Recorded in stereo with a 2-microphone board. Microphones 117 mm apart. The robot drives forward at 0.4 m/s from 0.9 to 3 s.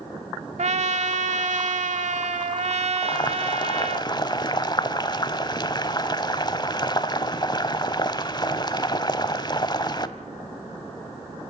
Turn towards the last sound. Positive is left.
turn(degrees=35)  # may be behind; listen again after turning